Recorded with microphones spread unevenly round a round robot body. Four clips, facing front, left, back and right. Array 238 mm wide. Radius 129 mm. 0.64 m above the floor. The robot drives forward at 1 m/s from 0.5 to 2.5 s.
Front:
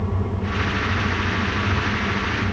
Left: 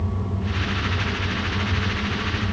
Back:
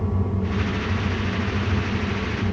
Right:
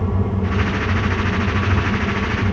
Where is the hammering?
I don't hear hammering.